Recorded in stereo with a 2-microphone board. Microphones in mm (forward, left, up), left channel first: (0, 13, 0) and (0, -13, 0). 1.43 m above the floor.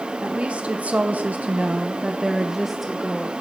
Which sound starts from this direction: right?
A woman speaking, at 0.2 s.